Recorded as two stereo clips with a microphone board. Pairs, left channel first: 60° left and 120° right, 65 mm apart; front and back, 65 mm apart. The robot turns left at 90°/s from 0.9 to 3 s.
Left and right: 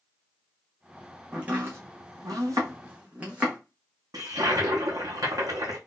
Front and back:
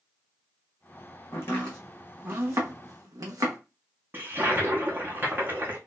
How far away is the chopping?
About 1.6 m.